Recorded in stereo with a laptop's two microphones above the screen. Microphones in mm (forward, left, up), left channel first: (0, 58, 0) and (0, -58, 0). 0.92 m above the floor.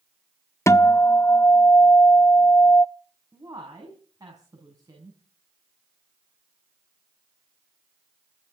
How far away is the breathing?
No breathing in this recording.